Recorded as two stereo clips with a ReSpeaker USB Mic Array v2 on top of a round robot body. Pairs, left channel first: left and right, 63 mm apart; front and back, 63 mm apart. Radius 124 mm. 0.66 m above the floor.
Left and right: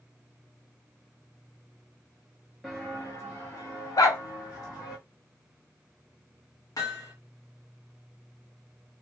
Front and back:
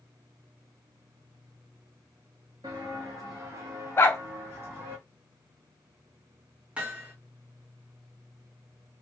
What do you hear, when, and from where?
2.6 s footsteps: straight behind, 0.7 m; by 5.0 s 120° left, 1.9 m
4.0 s a dog barking: 55° left, 0.5 m
6.8 s hammering: 110° left, 1.9 m